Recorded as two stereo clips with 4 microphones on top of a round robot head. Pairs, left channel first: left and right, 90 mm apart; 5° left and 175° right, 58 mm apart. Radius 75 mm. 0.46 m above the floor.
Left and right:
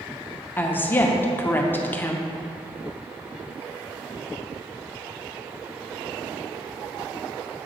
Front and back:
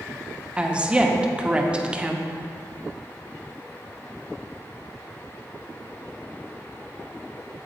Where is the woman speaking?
130° left, 0.8 m.